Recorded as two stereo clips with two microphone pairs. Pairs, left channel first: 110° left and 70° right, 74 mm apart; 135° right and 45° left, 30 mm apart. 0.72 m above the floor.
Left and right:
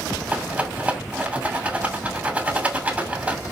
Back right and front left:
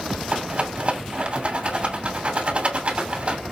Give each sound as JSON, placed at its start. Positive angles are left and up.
{"t": 0.3, "sound": "a rattle", "azimuth_deg": 0, "distance_m": 2.5}